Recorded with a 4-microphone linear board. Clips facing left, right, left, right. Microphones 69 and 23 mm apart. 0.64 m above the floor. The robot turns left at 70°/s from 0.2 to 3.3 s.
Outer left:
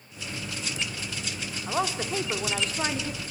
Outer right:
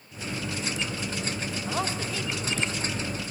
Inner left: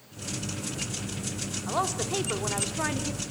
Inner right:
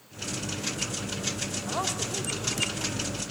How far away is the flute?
No flute in this recording.